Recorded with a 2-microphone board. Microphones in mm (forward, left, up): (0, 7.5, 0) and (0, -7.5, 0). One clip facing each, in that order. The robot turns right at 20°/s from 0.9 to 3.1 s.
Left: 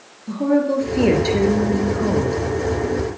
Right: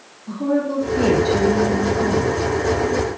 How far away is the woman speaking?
About 2.5 m.